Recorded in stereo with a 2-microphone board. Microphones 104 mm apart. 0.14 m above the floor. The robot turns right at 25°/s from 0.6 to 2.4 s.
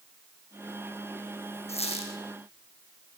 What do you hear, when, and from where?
1.7 s a squeak: 80° left, 3.5 m